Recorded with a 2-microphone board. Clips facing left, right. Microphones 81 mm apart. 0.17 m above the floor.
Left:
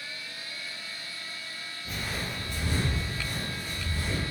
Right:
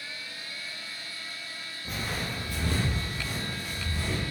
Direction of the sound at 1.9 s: 30° right (ahead or behind).